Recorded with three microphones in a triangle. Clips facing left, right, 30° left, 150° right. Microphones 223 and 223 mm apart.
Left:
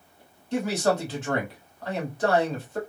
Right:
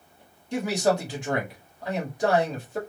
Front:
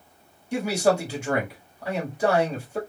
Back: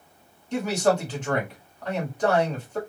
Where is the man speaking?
35° right, 1.6 m.